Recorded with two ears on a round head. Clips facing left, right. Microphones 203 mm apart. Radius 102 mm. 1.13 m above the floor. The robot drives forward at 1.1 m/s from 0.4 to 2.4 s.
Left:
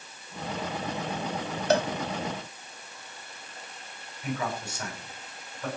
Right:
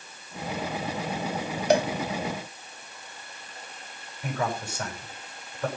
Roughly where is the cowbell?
Centre.